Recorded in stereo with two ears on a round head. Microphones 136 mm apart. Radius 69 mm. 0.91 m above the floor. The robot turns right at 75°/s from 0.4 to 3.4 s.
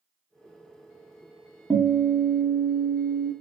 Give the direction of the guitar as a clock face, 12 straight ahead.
6 o'clock.